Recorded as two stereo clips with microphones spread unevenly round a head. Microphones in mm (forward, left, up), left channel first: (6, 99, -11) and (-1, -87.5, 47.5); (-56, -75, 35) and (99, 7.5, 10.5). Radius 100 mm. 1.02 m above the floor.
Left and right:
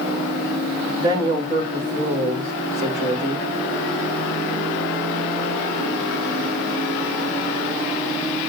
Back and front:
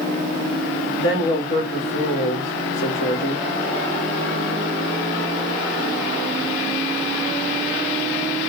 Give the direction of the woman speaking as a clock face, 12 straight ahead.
6 o'clock.